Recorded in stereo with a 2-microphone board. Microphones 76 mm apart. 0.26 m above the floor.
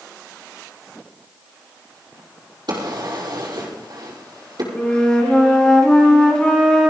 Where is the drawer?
65° right (ahead or behind), 5 m.